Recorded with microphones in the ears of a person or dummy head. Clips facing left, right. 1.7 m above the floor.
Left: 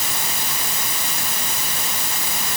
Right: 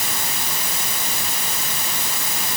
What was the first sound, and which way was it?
Only background noise.